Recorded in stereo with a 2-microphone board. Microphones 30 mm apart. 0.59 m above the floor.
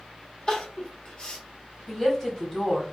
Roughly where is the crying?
Left.